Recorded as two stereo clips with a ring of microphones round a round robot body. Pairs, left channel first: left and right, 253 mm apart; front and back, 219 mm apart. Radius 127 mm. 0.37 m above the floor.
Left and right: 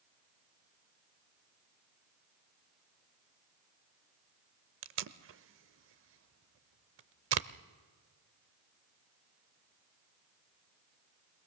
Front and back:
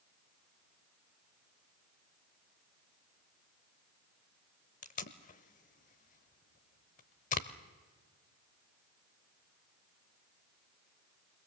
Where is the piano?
I don't hear a piano.